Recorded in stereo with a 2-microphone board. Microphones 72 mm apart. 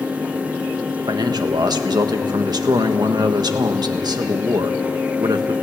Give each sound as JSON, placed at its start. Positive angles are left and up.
{"t": 1.1, "sound": "a man speaking", "side_deg": -70, "distance_m": 1.4}